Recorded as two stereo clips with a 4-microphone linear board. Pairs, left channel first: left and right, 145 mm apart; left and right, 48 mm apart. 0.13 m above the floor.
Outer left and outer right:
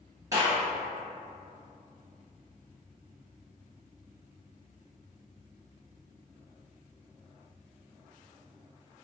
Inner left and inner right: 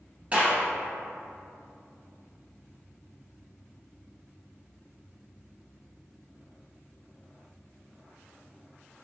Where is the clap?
25° right (ahead or behind), 1.9 m.